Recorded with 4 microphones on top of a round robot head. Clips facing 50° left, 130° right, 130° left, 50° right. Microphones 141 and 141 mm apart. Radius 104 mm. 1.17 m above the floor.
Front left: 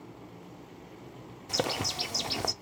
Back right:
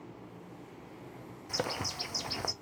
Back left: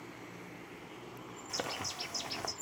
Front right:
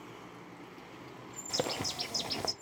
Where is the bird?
5° right, 0.5 m.